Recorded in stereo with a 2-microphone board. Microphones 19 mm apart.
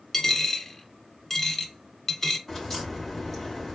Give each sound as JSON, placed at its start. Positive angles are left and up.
{"t": 0.1, "sound": "a dropped coin", "side_deg": 20, "distance_m": 1.3}
{"t": 2.5, "sound": "a crack", "side_deg": 15, "distance_m": 2.5}